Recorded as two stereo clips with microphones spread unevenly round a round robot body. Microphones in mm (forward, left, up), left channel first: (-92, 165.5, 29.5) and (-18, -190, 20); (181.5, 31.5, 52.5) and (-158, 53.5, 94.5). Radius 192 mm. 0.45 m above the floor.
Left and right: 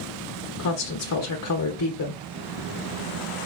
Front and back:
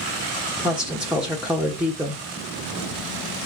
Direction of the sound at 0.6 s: 80° left.